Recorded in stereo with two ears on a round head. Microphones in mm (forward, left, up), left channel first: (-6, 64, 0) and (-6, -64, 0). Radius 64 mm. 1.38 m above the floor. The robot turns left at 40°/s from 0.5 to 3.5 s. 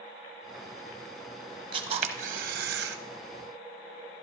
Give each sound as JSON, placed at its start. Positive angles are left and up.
{"t": 1.7, "sound": "a camera shutter", "azimuth_deg": -35, "distance_m": 0.7}